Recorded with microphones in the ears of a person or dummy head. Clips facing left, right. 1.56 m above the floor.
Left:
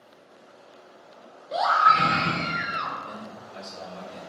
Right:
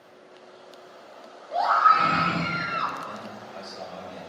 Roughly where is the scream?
Left.